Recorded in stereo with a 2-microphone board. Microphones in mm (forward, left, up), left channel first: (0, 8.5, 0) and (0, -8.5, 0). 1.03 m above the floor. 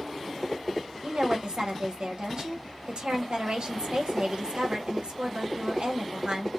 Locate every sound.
1.0 s a woman speaking: 55° right (ahead or behind), 1.0 m